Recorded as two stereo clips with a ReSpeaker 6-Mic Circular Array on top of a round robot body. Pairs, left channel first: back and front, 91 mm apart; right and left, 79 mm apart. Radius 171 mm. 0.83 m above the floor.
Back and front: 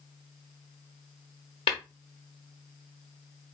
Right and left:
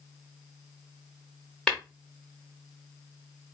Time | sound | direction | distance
1.7 | tapping | 170° right | 0.8 m